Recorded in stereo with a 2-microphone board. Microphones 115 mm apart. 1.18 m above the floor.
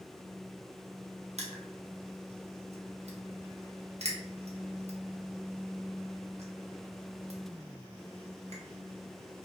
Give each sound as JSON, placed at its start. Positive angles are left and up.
{"t": 1.4, "sound": "crushing", "side_deg": -70, "distance_m": 0.9}